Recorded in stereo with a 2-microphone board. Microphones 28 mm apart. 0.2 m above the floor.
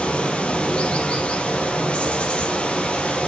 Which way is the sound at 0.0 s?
40° left (ahead or behind).